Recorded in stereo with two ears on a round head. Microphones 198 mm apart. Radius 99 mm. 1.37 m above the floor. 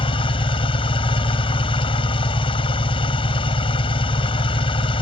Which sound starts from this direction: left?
An engine running, at 0.0 s.